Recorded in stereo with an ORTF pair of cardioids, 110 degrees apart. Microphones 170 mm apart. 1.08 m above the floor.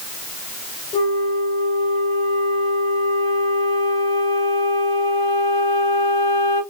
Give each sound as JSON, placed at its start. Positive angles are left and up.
{"t": 0.9, "sound": "a flute", "azimuth_deg": 35, "distance_m": 3.0}